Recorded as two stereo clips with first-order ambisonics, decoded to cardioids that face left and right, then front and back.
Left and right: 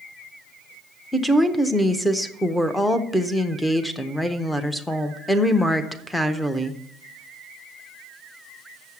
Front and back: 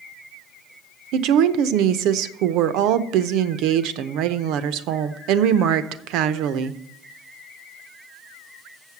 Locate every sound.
1.1 s a woman speaking: 175° left, 0.6 m